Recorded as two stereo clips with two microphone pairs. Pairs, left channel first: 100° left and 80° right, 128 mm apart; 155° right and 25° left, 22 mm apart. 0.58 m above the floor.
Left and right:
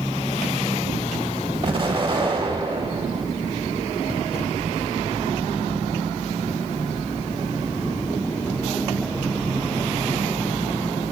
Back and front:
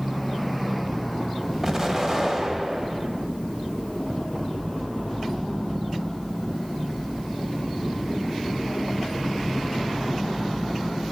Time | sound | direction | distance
1.6 | an explosion | 35° right | 0.6 m